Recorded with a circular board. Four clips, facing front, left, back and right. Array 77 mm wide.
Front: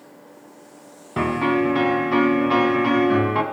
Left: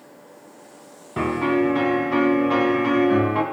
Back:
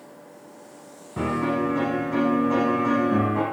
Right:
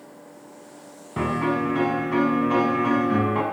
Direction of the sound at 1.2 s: 10° left.